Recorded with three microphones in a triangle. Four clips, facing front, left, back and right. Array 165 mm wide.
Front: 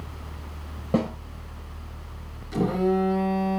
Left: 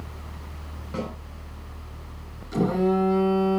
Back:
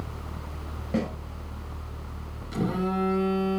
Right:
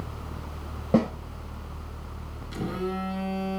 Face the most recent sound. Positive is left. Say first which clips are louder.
# left 9 dB, front 5 dB
turn(degrees=60)